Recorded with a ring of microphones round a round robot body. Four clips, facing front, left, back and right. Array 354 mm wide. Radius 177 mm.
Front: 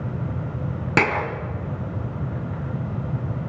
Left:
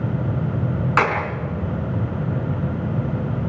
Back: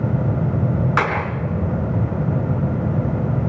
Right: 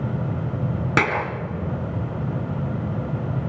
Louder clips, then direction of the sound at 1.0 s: Left 2 dB, front 1 dB; 40° right.